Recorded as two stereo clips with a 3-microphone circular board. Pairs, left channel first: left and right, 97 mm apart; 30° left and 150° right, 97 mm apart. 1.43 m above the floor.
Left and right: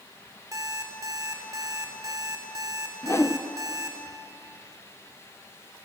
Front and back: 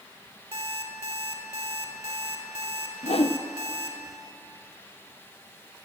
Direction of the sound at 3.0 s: 25° left.